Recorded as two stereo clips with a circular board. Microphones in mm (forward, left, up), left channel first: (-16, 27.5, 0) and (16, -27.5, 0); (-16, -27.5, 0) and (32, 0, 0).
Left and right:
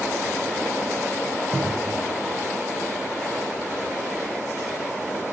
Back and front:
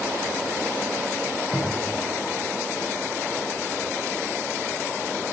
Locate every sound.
1.5 s a cupboard door: 115° right, 6.5 m